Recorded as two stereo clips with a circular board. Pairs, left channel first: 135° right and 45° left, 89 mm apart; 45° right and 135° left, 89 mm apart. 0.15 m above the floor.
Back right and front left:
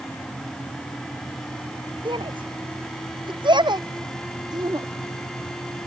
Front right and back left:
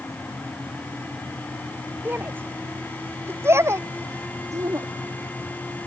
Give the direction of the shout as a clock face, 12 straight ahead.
10 o'clock.